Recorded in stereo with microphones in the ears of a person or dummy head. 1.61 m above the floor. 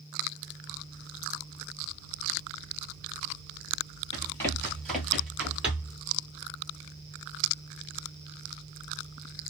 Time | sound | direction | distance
4.1 | running footsteps | 15° left (ahead or behind) | 2 m